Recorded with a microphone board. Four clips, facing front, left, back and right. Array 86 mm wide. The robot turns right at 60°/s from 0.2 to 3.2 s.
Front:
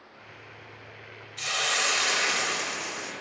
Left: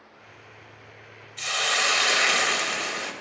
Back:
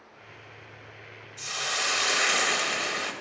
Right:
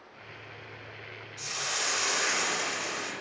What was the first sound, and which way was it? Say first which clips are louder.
A hiss: left 9 dB, front 3 dB; 45° left.